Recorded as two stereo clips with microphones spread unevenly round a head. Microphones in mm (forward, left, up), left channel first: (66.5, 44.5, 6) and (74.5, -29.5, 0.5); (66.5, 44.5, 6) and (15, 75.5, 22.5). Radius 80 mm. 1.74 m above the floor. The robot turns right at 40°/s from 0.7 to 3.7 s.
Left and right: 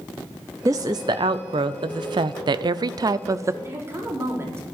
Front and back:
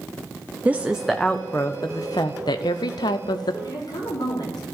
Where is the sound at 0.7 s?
145° right, 0.5 m; by 3.5 s 30° right, 0.5 m.